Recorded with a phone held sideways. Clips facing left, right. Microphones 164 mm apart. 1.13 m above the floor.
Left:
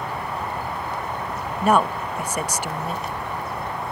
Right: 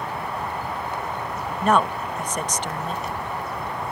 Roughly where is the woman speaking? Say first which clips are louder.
Left 1 dB; centre.